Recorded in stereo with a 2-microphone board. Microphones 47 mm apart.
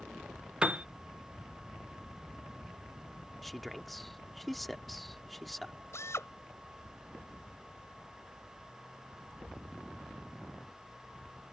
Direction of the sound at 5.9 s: 75° left (ahead or behind).